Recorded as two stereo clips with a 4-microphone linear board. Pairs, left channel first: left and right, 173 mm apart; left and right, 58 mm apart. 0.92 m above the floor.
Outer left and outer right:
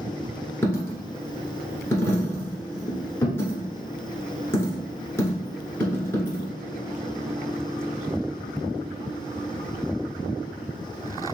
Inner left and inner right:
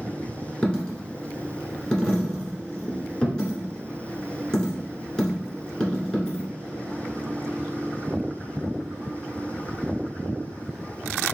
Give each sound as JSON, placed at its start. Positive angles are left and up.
{"t": 0.6, "sound": "a dropped coin", "side_deg": 15, "distance_m": 1.3}